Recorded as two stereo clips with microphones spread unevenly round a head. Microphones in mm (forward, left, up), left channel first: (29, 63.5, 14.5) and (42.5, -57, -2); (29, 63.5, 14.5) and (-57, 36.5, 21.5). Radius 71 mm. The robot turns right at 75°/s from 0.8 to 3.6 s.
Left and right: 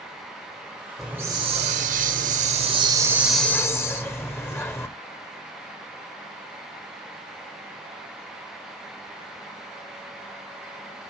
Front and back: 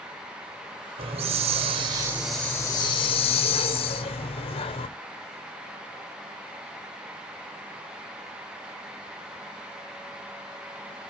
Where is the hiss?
175° right, 1.2 m; by 4.9 s 25° left, 1.2 m.